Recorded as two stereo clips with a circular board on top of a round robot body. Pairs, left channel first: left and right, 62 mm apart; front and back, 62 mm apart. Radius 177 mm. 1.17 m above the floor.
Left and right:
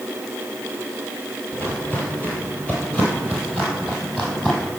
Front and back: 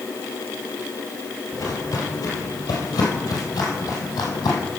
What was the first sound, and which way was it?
Footsteps, 25° left.